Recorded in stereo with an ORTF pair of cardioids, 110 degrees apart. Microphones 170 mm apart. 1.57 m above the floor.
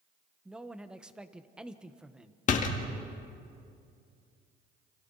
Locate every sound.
0.5 s a man speaking: 5° right, 1.2 m
2.5 s a door slam: 50° left, 1.9 m